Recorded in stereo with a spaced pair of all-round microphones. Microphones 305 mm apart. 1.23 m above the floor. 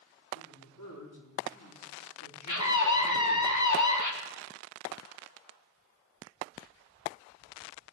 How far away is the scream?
About 1.5 m.